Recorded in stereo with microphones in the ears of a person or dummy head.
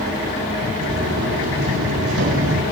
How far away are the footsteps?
About 5 m.